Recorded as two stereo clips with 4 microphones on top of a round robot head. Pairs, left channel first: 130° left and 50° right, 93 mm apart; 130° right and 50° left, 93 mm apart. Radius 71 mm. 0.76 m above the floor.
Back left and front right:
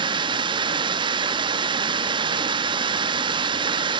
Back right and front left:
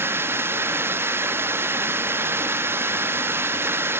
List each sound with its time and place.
0.0 s running water: 15° right, 0.7 m